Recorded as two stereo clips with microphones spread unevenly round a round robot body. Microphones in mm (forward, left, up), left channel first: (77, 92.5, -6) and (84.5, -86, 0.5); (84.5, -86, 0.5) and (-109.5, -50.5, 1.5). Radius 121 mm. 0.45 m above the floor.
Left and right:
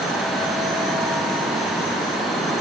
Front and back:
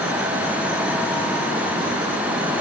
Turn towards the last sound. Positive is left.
No sound to turn to.